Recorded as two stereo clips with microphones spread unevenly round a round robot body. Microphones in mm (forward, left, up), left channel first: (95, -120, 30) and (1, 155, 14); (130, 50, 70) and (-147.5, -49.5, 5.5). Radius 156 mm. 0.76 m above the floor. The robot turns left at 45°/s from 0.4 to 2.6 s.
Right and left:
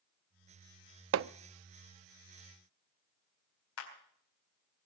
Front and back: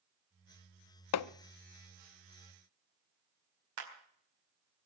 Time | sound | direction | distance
1.1 | hammering | 65° left | 0.5 m
3.8 | a clap | 120° right | 4 m